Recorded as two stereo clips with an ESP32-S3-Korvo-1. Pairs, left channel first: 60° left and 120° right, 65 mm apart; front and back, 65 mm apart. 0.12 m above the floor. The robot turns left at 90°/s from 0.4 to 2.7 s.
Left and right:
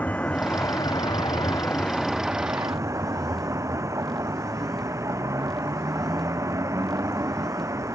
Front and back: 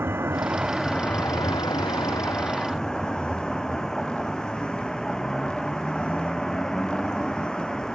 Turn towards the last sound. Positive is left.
turn(degrees=-80)